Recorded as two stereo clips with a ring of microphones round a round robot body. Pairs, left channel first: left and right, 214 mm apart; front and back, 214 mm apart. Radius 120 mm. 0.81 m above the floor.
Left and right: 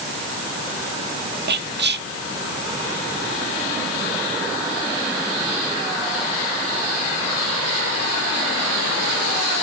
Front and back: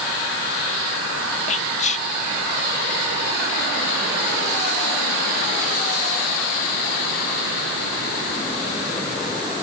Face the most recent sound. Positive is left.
turn(degrees=-55)